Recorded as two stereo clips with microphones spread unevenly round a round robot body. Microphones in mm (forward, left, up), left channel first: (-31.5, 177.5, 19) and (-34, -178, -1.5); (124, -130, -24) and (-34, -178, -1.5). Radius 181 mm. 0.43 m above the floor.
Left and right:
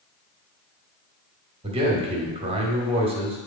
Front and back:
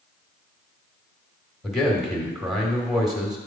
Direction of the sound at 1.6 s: 55° right.